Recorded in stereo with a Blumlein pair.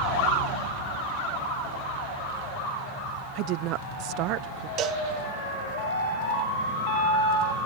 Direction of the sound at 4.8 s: 35° right.